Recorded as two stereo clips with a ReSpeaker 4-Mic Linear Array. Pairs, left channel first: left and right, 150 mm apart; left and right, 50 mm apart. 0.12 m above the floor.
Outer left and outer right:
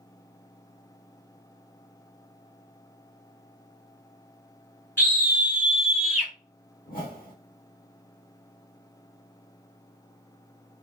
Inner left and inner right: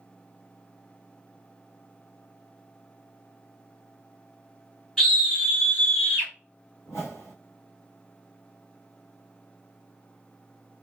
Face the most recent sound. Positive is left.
turn(degrees=80)